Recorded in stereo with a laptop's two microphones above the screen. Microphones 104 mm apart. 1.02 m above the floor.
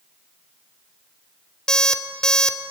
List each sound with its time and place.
1.7 s an alarm clock: 5° left (ahead or behind), 1.2 m